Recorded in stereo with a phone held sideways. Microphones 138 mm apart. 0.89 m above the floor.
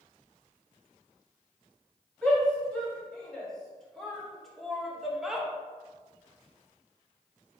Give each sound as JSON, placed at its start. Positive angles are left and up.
{"t": 2.2, "sound": "a shout", "side_deg": 5, "distance_m": 2.5}